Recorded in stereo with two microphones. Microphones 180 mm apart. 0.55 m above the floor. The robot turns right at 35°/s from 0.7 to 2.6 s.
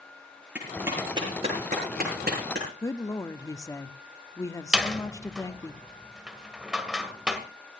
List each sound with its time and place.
0.6 s a clap: 5° right (ahead or behind), 8 m; by 2.7 s 75° right (ahead or behind), 8 m
2.8 s a woman speaking: 20° left (ahead or behind), 0.9 m
4.7 s a door slam: 5° right (ahead or behind), 1.7 m